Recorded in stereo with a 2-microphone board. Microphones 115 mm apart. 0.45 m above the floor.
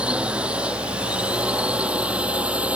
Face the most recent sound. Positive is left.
turn(degrees=-10)  # may be behind; listen again after turning